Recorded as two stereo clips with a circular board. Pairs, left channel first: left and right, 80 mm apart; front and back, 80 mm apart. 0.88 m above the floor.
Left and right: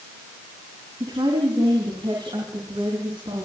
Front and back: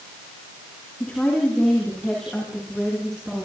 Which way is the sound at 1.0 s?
75° right.